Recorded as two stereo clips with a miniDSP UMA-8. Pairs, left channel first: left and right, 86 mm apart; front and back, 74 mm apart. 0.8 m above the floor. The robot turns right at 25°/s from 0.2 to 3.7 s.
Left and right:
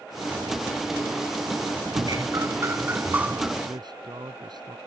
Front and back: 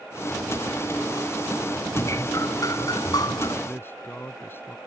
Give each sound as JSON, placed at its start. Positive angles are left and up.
{"t": 1.9, "sound": "dripping", "azimuth_deg": -50}
{"t": 3.6, "sound": "a man speaking", "azimuth_deg": -60}